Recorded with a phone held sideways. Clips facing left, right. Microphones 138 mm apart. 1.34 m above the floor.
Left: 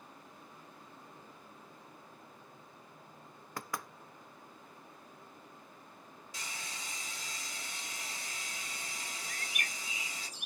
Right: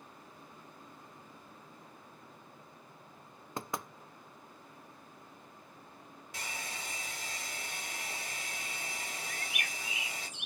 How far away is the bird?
About 0.6 m.